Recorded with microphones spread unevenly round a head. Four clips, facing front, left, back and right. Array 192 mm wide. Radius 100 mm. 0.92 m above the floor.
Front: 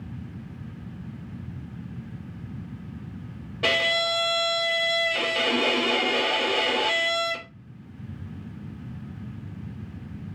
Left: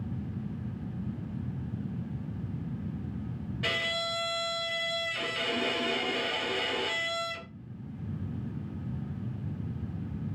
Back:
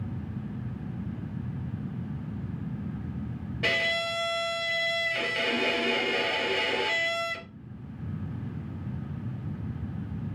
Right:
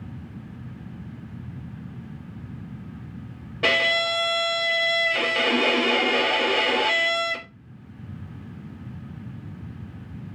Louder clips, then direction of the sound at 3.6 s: Right 11 dB, front 5 dB; 75° right.